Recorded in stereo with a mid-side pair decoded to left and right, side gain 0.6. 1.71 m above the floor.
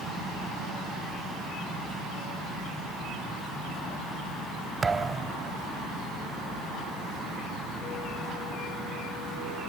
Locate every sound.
4.8 s a thud: 20° right